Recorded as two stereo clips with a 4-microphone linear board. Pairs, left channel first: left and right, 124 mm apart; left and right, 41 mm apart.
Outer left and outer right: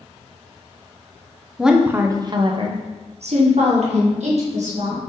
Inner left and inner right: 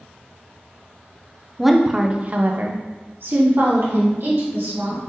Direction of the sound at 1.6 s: Centre (ahead or behind).